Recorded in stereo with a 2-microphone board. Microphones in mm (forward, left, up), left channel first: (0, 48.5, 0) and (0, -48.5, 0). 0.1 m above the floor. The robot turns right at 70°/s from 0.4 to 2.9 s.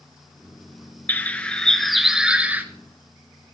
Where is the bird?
20° left (ahead or behind), 1.2 m; by 2.6 s 20° right (ahead or behind), 1.2 m.